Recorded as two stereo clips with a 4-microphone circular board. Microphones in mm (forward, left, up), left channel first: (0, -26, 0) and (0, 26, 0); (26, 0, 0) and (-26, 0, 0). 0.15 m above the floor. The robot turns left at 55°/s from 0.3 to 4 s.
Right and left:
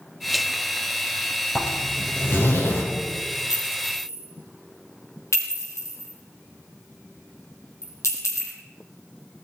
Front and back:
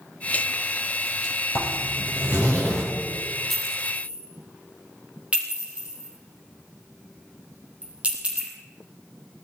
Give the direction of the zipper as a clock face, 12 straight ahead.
12 o'clock.